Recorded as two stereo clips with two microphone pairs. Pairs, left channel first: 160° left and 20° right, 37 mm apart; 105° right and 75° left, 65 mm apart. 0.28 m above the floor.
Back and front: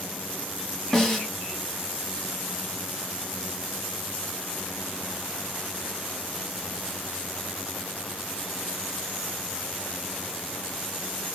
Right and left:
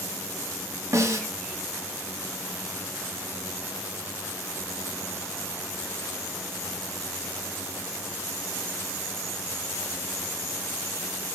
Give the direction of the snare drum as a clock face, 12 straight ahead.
9 o'clock.